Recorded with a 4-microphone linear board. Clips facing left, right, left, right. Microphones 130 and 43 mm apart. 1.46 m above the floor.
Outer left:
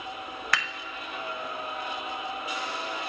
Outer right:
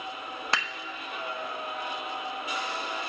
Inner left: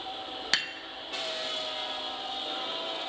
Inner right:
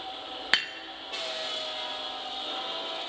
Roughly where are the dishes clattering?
Right.